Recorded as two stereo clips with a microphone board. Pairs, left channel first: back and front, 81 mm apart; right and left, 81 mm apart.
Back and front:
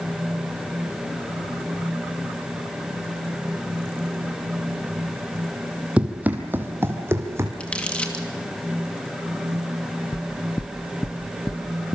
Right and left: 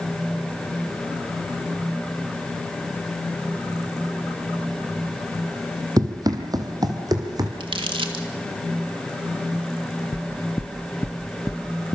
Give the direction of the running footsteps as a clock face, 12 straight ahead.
10 o'clock.